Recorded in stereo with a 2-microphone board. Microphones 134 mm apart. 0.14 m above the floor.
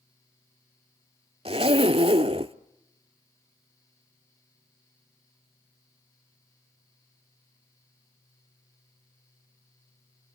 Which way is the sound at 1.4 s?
45° right (ahead or behind).